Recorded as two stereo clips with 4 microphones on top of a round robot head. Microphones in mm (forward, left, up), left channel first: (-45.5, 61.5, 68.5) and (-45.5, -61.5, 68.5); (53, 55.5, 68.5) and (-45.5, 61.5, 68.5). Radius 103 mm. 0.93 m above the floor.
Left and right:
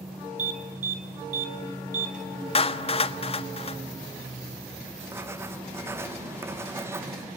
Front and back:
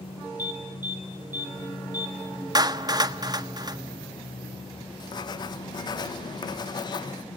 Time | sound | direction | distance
0.4 | an alarm | 105° right | 4.5 m
2.5 | a clap | 130° left | 1.4 m
5.0 | writing | 25° right | 0.7 m